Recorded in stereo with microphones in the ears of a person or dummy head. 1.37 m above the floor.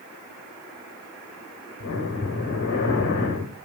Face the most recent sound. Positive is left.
turn(degrees=60)  # may be behind; listen again after turning